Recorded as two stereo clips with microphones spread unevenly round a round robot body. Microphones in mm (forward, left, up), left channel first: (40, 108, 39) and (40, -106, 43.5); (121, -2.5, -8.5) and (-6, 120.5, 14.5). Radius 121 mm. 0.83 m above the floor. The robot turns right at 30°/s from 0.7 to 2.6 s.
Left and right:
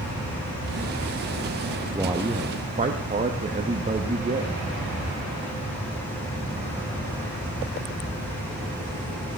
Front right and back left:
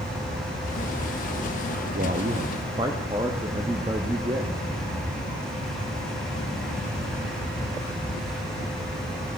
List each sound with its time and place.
1.9 s a man speaking: 170° right, 0.9 m; by 4.5 s 150° right, 0.9 m